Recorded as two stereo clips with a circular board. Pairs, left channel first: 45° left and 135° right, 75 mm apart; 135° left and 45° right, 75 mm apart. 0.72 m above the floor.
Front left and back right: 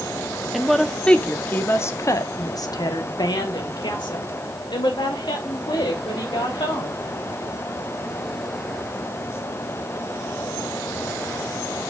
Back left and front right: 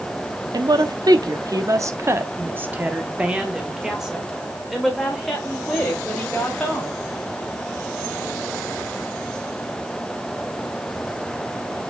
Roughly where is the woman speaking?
Ahead right.